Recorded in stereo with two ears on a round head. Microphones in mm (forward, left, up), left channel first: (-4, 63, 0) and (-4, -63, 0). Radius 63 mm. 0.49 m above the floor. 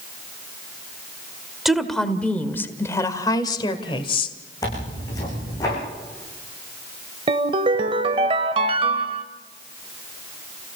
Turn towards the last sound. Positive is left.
turn(degrees=-40)  # may be behind; listen again after turning